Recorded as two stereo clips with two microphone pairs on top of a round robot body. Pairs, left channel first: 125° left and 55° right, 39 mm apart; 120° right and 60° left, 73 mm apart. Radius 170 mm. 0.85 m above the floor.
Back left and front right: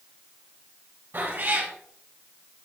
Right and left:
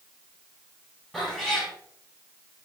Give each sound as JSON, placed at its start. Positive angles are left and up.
{"t": 1.1, "sound": "a cat meowing", "azimuth_deg": -35, "distance_m": 5.5}